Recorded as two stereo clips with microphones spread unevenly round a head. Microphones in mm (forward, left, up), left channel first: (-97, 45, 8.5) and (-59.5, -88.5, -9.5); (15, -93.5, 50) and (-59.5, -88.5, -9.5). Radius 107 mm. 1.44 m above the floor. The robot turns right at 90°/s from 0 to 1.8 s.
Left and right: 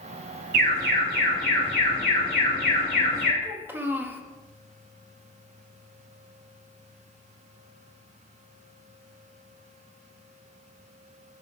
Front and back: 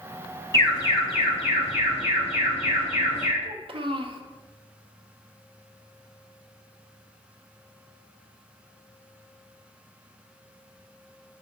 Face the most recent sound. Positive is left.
turn(degrees=-155)